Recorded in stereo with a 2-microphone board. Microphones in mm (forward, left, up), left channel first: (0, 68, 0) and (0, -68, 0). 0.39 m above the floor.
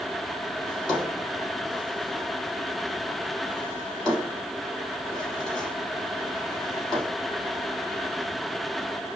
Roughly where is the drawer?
Centre.